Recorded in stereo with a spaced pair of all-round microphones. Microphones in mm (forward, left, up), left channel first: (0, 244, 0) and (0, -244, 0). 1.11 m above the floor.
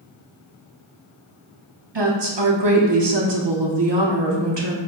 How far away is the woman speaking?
About 0.9 m.